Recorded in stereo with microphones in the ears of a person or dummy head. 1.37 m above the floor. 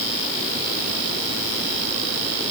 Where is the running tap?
I don't hear a running tap.